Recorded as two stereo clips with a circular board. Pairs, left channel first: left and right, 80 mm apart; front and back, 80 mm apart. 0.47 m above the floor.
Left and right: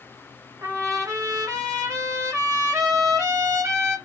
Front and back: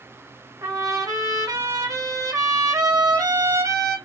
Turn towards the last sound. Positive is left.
turn(degrees=-135)